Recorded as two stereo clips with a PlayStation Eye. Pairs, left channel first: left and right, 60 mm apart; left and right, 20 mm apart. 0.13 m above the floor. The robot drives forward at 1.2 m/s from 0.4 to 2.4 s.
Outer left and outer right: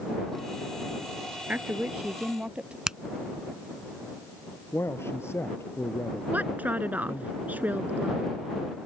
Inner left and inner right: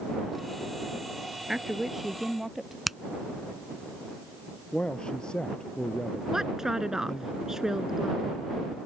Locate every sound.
1.5 s a woman speaking: 25° right (ahead or behind); by 2.8 s 20° right (ahead or behind)
2.9 s a finger snap: 10° right (ahead or behind)
4.7 s a man speaking: 45° left (ahead or behind)
6.3 s a woman speaking: 25° right (ahead or behind)